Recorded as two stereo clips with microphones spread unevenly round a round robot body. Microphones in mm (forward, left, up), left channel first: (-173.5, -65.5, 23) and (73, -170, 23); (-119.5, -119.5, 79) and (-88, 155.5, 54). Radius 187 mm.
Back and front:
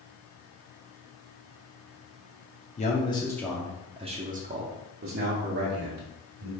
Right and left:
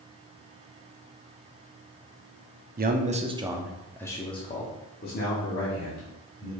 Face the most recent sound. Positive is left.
turn(degrees=-50)